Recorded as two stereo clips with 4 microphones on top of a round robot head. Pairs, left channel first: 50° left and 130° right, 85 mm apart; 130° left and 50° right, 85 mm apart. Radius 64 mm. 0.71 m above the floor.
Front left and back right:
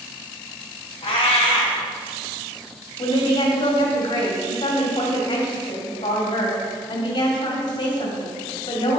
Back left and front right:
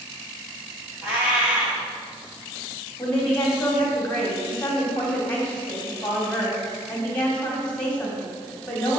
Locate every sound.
1.0 s a cat meowing: 25° left, 1.9 m
3.0 s a woman speaking: 55° left, 2 m